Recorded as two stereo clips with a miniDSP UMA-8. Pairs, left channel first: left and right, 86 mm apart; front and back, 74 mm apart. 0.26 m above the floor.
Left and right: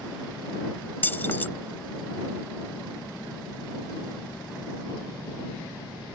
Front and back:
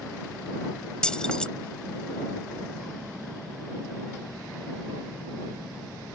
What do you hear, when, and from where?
1.0 s keys jangling: 65° left